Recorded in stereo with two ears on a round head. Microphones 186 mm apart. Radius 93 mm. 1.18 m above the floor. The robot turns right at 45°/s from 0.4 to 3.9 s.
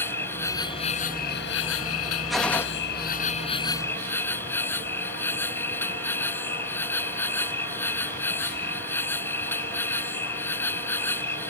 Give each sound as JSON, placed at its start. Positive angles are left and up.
{"t": 0.0, "sound": "an insect", "azimuth_deg": 10}
{"t": 2.3, "sound": "a gunshot", "side_deg": 0}